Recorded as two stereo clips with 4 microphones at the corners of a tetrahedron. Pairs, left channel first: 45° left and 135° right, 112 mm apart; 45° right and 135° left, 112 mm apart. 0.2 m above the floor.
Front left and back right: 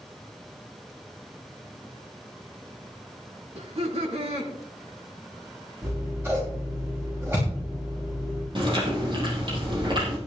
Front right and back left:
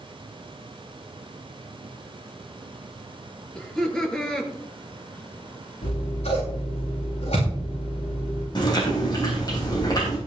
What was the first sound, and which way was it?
Laughter, 125° right.